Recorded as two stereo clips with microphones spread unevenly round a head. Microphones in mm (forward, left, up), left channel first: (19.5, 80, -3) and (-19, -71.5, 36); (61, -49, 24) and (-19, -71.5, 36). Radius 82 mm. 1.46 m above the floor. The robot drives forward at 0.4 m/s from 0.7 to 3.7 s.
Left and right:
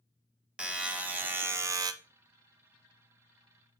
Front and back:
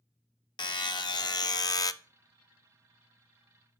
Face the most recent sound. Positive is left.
turn(degrees=-125)